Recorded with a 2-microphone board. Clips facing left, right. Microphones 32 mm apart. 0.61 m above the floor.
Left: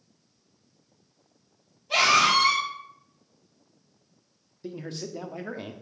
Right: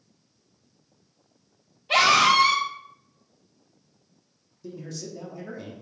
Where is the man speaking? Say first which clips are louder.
Left 2 dB; 35° left (ahead or behind), 0.7 m.